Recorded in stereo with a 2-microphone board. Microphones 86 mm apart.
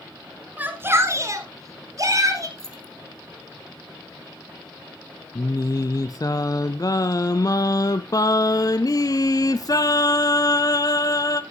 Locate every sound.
0.6 s a shout: 20° right (ahead or behind), 1.3 m; by 2.5 s 40° right (ahead or behind), 3 m
2.6 s keys jangling: 5° left (ahead or behind), 1.5 m
5.3 s singing: 45° left (ahead or behind), 0.6 m